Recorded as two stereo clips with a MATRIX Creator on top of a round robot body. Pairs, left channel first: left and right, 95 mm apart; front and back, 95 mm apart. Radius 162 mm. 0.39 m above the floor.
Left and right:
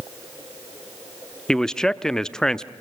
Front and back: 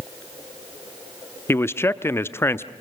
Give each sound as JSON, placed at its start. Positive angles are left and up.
{"t": 1.5, "sound": "a man speaking", "azimuth_deg": 15, "distance_m": 0.8}